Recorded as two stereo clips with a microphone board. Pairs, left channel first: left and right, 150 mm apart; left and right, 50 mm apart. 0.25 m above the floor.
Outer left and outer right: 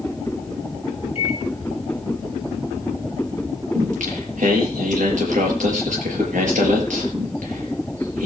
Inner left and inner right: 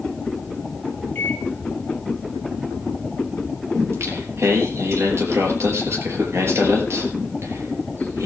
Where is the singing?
55° right (ahead or behind), 5 m.